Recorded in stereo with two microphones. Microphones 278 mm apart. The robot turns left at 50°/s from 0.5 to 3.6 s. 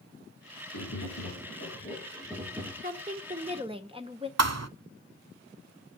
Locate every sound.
0.7 s tapping: 90° left, 9 m; by 2.7 s 5° right, 9 m
2.8 s a woman speaking: 100° right, 1.4 m; by 4.3 s 140° right, 1.4 m
4.4 s a thud: 65° right (ahead or behind), 0.6 m